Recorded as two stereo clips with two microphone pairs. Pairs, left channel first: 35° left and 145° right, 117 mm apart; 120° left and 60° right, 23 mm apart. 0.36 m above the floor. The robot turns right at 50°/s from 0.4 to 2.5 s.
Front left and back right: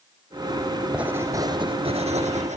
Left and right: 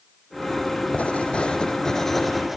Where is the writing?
135° left, 3.5 m; by 2.6 s 150° right, 3.5 m.